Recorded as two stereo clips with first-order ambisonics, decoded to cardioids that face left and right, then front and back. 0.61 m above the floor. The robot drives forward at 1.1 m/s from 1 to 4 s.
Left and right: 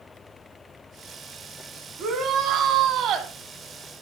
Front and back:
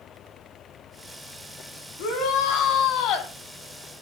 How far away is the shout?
About 5 m.